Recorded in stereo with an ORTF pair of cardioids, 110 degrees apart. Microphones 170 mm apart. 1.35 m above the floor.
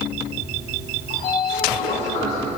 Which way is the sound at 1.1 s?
65° left.